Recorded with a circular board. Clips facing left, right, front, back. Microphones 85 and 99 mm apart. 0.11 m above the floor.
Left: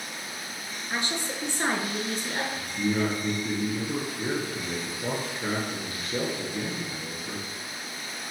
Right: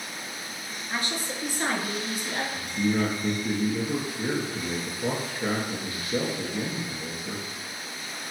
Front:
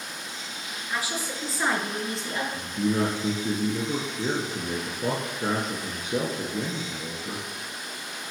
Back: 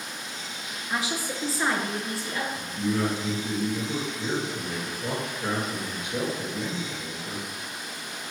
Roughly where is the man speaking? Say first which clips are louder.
Right 2 dB, front 3 dB; ahead.